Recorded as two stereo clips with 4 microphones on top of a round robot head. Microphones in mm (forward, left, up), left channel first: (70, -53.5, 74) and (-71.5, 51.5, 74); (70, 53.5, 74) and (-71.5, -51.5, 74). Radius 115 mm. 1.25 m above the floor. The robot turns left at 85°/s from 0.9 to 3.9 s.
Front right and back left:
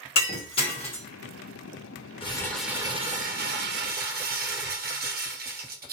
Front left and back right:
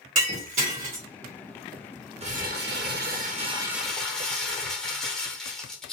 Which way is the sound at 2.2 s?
95° right.